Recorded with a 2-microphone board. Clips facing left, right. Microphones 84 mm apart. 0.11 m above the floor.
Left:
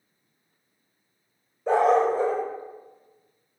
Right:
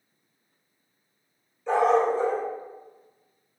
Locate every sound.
1.7 s a dog barking: 50° left (ahead or behind), 1.3 m